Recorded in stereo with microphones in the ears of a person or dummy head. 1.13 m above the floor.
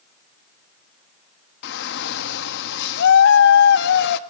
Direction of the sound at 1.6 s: 70° left (ahead or behind).